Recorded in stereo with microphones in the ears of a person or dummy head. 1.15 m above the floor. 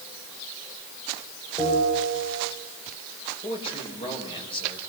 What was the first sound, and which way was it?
A bell, 25° left (ahead or behind).